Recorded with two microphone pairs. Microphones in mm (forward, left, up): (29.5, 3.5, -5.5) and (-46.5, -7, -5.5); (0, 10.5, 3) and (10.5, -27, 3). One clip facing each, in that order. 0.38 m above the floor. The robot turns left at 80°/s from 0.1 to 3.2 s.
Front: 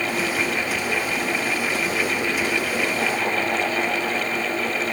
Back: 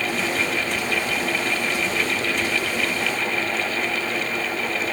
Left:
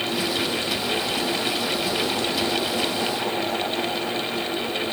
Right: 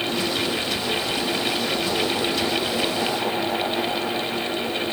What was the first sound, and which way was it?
Only background noise.